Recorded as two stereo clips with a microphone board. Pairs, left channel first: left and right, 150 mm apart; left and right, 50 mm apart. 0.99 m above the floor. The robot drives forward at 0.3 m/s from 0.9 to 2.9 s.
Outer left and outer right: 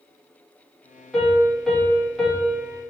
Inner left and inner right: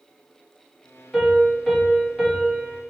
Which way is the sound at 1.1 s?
Centre (ahead or behind).